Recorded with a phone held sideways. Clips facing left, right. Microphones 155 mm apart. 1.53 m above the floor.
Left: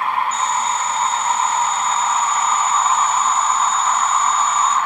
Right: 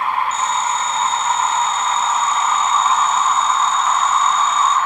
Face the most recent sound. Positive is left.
turn(degrees=65)  # may be behind; listen again after turning